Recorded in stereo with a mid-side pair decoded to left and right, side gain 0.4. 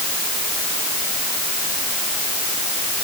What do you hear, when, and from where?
Only background noise.